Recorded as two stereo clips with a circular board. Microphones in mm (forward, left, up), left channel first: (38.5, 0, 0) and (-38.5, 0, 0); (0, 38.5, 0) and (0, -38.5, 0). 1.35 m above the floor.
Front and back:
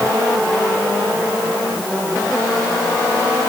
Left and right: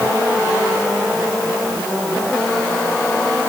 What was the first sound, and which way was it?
Only background noise.